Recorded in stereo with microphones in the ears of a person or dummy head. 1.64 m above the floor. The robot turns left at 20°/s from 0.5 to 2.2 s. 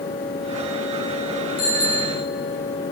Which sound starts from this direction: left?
A bicycle bell, at 1.6 s.